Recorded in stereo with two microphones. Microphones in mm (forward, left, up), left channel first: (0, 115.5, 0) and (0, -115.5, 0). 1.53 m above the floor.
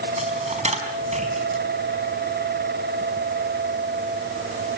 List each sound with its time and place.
0.2 s a dropped coin: 30° right (ahead or behind), 4.5 m